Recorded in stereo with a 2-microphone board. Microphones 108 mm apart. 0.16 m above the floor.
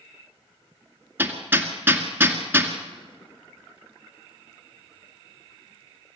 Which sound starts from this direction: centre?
Hammering, at 1.2 s.